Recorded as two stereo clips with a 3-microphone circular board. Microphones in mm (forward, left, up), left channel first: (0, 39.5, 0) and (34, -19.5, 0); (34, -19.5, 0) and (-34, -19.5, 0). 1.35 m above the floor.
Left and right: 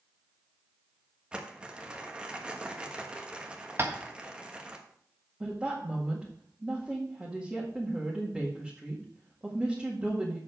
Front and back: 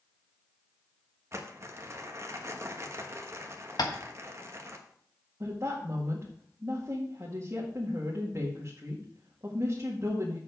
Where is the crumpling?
135° right, 1.2 m.